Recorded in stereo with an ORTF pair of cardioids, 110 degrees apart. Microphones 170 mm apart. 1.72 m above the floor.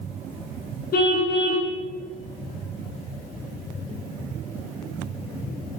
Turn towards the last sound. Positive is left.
turn(degrees=60)